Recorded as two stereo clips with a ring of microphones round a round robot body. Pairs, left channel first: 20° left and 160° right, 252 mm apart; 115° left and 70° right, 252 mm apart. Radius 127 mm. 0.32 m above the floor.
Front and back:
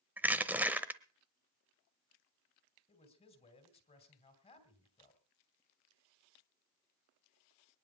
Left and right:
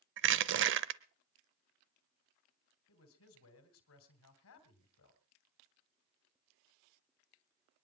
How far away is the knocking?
I don't hear knocking.